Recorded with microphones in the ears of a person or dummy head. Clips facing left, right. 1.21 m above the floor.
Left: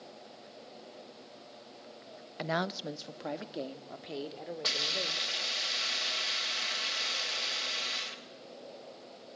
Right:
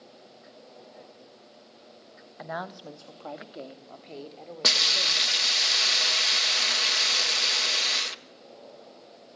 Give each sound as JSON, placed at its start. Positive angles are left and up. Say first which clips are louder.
{"t": 2.4, "sound": "a woman speaking", "louder": "left 3 dB", "side_deg": 45, "distance_m": 0.9}
{"t": 4.6, "sound": "a hiss", "louder": "right 3 dB", "side_deg": -75, "distance_m": 1.2}